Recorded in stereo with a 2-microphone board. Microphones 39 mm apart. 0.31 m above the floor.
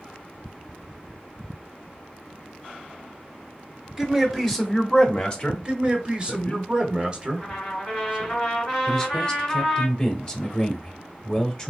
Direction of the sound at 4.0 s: 10° right (ahead or behind).